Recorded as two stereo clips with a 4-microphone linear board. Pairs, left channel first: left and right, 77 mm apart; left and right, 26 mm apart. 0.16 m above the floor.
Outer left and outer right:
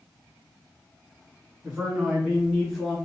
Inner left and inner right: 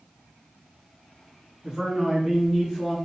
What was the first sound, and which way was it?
A man speaking, 20° right (ahead or behind).